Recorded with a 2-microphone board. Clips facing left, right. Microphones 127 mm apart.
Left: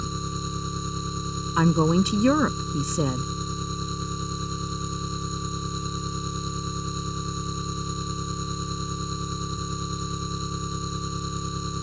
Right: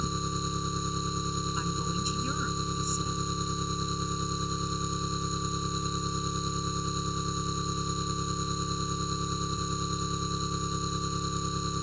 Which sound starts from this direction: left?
A woman speaking, at 1.6 s.